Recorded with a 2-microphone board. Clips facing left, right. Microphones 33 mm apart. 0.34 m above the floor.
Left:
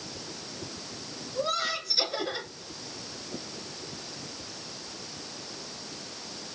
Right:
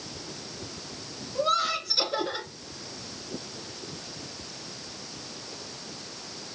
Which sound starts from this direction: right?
Laughter, at 1.4 s.